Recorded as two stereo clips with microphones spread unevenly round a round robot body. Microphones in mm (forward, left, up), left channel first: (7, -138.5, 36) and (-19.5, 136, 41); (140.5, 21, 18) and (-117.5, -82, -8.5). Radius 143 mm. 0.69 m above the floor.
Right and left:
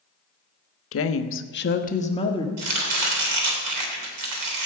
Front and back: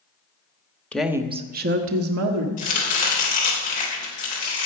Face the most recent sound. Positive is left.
turn(degrees=90)